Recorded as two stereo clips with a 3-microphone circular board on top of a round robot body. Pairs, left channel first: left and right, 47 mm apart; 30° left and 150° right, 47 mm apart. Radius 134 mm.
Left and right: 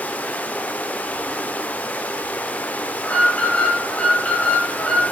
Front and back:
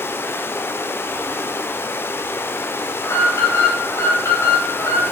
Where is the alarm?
25° left, 4.5 m.